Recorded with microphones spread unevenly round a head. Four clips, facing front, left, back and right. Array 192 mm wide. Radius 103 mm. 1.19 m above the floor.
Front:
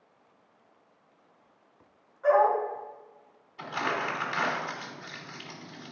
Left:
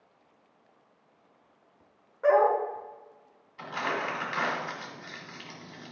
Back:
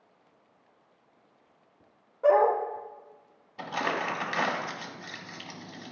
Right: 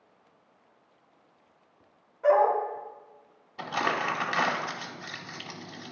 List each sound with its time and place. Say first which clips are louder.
2.2 s a dog barking: even, back 1 dB; 155° left, 1.5 m
3.6 s crumpling: right 3 dB, even; 105° right, 1.2 m